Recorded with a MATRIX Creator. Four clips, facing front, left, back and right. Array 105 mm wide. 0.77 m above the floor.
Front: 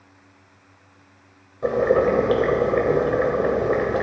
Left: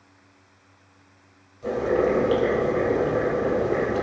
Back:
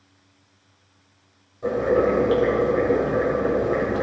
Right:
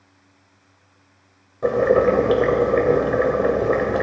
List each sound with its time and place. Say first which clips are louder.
1.6 s boiling: right 6 dB, front 2 dB; 65° right, 1.8 m